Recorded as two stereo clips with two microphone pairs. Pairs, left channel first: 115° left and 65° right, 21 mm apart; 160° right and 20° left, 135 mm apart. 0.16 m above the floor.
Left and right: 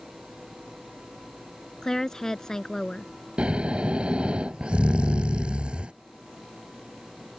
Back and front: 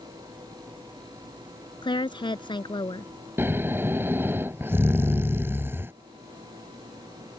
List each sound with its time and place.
1.8 s a woman speaking: 160° left
3.4 s snoring: 55° right